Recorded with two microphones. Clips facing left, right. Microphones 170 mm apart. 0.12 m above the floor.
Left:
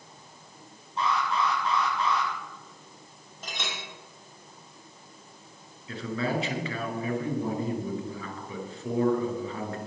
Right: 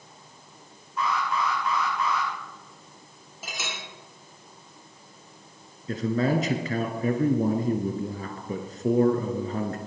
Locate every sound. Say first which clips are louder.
1.0 s an alarm: even; 30° left (ahead or behind), 7 m
3.4 s a clink: even; 5° right (ahead or behind), 3 m
5.9 s a man speaking: right 6 dB; 40° right (ahead or behind), 1.5 m